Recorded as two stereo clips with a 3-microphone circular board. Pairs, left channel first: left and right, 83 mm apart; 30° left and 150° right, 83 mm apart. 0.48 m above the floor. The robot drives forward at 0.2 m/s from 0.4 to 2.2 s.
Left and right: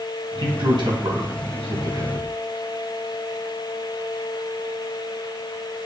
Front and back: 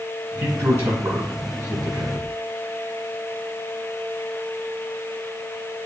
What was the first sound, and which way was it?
A man speaking, 95° right.